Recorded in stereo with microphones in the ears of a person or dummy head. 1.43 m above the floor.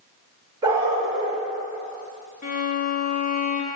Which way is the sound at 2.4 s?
45° left (ahead or behind).